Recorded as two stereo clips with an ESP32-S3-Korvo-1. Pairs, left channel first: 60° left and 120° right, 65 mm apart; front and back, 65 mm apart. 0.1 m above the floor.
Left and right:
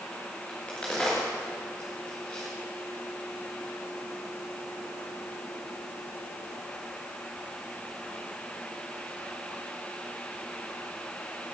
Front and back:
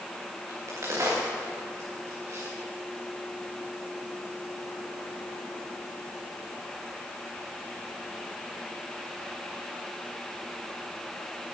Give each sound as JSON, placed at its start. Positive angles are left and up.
{"t": 0.5, "sound": "a crack", "azimuth_deg": 135, "distance_m": 5.5}